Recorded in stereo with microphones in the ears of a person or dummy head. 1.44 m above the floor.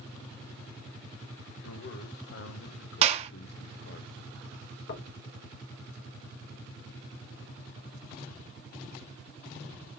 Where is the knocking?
60° left (ahead or behind), 1.6 m.